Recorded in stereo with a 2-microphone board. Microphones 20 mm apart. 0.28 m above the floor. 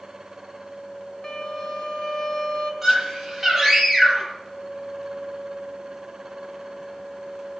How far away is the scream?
About 9.5 m.